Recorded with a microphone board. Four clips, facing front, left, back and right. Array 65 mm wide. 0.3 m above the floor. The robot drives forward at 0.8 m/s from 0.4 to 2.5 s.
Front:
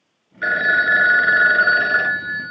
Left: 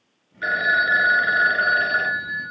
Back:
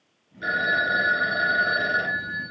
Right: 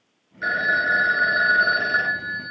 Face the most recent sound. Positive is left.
turn(degrees=-10)